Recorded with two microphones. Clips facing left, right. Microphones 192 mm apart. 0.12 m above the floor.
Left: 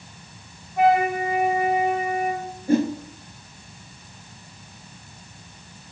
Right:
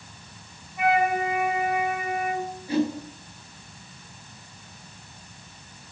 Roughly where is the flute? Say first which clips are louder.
Left 4 dB; left.